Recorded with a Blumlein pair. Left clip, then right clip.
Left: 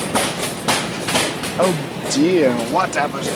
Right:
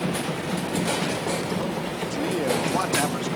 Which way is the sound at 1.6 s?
35° left.